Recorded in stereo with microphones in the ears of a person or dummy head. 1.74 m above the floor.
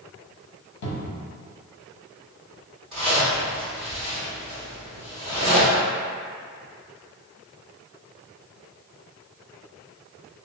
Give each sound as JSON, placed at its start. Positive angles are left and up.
{"t": 0.8, "sound": "a cupboard door", "side_deg": 65, "distance_m": 0.9}
{"t": 2.9, "sound": "a zipper", "side_deg": 0, "distance_m": 1.8}